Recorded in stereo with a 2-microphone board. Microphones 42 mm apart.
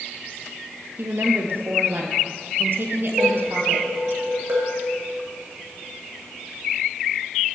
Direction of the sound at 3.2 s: 55° right (ahead or behind).